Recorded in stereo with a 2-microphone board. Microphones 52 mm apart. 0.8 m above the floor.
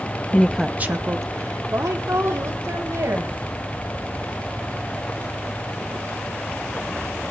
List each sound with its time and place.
0.3 s a woman speaking: 25° left (ahead or behind), 0.8 m; by 3.3 s 75° right (ahead or behind), 4 m